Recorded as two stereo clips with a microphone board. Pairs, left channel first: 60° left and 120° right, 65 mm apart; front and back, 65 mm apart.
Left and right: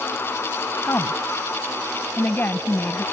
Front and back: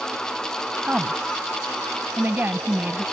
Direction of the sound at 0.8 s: 115° left.